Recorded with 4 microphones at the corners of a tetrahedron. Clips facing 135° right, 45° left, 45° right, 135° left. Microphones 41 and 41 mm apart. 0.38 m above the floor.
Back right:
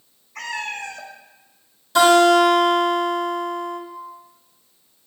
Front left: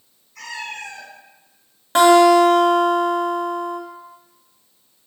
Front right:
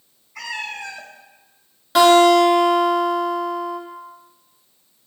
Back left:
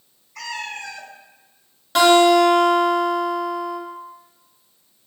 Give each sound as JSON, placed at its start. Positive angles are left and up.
{"t": 0.3, "sound": "a cat meowing", "azimuth_deg": -120, "distance_m": 1.0}
{"t": 1.9, "sound": "a guitar", "azimuth_deg": 45, "distance_m": 2.0}